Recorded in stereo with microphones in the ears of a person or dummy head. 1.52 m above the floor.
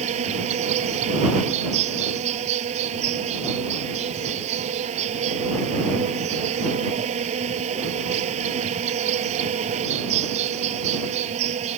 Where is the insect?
35° right (ahead or behind).